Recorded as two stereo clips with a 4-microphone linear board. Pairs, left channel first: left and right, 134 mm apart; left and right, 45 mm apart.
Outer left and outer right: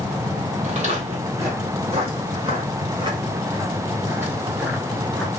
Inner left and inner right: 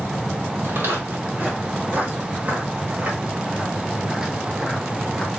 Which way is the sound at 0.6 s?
55° right (ahead or behind).